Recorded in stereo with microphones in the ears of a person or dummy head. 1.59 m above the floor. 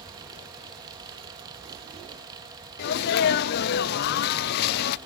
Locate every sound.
0.0 s a fan: 20° right (ahead or behind), 1.3 m
2.8 s a sneeze: 55° left (ahead or behind), 0.6 m